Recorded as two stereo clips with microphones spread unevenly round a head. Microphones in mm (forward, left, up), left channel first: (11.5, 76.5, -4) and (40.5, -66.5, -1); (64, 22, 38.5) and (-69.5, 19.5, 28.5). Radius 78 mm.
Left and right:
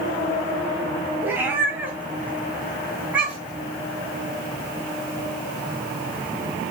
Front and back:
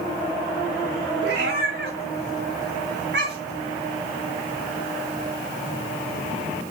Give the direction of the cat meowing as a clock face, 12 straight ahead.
5 o'clock.